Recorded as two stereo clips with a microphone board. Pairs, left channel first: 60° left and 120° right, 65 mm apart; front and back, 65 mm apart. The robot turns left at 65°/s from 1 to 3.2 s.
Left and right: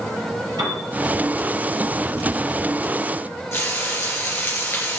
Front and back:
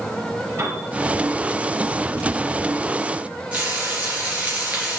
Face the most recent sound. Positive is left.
turn(degrees=110)